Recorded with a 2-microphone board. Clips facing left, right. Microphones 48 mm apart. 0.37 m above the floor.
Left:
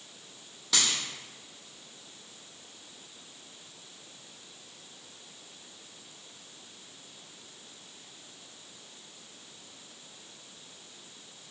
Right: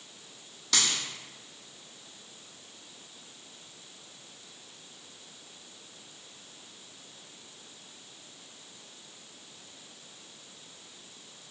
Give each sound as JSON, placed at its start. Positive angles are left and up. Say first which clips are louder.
{"t": 0.7, "sound": "a dropped coin", "louder": "even", "side_deg": 5, "distance_m": 1.7}